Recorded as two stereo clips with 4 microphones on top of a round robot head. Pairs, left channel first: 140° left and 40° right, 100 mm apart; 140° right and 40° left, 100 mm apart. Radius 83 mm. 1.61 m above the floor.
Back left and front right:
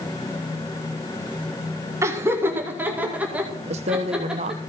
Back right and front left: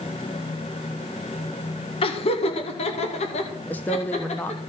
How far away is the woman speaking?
About 1.0 m.